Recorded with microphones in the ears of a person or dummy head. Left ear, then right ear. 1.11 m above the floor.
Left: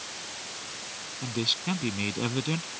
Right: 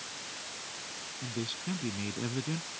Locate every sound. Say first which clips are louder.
1.2 s a man speaking: left 11 dB; 35° left (ahead or behind)